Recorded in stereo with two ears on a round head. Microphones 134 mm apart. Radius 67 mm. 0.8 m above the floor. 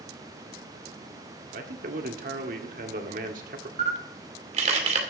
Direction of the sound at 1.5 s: 60° right (ahead or behind).